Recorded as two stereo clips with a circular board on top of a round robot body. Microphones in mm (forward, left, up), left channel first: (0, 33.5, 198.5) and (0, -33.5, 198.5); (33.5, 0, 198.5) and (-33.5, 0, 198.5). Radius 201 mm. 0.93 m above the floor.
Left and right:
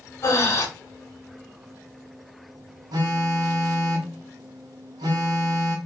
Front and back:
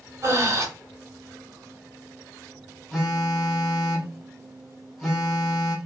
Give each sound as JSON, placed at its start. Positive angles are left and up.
{"t": 0.2, "sound": "breathing", "azimuth_deg": 135, "distance_m": 1.7}
{"t": 2.9, "sound": "a phone buzzing", "azimuth_deg": -85, "distance_m": 0.9}